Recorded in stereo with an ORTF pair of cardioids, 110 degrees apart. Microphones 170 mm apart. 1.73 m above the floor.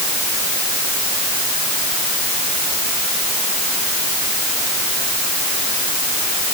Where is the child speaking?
I don't hear a child speaking.